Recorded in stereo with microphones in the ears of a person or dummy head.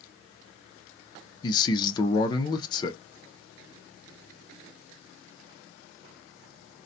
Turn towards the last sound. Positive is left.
turn(degrees=15)  # may be behind; listen again after turning